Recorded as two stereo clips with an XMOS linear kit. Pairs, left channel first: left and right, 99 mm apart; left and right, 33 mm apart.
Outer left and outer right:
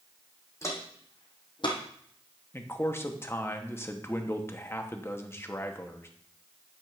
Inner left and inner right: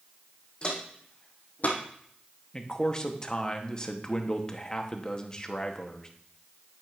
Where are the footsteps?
30° left (ahead or behind), 2.5 m; by 1.8 s 55° left (ahead or behind), 2 m.